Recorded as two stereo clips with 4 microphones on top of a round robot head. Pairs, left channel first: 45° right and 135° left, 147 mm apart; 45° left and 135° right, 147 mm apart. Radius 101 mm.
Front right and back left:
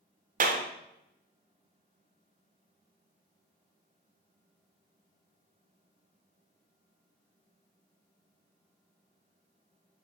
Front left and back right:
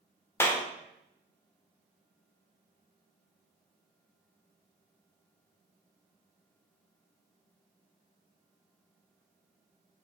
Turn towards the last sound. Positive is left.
turn(degrees=120)